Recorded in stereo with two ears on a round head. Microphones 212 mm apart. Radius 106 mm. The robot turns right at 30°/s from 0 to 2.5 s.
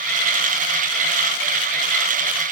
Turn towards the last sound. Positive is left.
No sound to turn to.